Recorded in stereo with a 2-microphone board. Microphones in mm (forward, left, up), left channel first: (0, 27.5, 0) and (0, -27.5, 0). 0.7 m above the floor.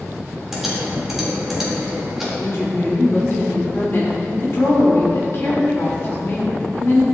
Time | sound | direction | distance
0.5 | typing on a keyboard | 5° right (ahead or behind) | 1.7 m
2.4 | a woman speaking | 55° left (ahead or behind) | 1.6 m